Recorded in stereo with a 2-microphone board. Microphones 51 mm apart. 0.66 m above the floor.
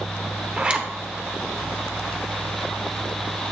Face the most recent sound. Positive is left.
turn(degrees=-25)  # may be behind; listen again after turning